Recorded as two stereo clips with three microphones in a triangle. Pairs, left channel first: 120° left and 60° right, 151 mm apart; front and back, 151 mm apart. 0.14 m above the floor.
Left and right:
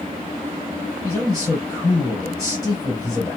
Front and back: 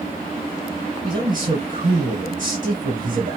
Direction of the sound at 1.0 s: Straight behind.